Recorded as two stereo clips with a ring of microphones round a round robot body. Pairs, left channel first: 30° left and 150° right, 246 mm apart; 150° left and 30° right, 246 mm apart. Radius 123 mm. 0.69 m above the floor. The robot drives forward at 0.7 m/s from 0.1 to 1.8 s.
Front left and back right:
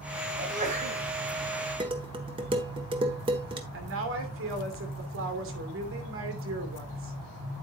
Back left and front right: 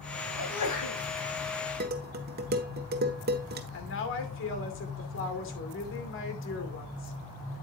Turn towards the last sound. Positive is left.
turn(degrees=180)